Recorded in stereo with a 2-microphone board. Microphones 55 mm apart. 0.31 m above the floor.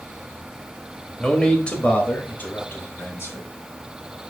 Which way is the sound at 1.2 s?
10° left (ahead or behind).